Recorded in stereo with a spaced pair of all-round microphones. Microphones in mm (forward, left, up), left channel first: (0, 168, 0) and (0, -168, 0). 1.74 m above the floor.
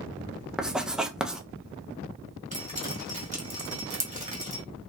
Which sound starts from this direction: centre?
Writing, at 0.6 s.